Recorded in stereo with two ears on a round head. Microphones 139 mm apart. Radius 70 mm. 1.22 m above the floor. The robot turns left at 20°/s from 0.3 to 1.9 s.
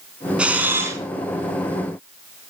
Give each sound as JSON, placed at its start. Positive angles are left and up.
{"t": 0.4, "sound": "a camera shutter", "side_deg": -5, "distance_m": 3.5}